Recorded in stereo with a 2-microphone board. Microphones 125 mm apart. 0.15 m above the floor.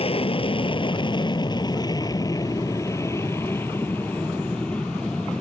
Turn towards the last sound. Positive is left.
turn(degrees=5)  # may be behind; listen again after turning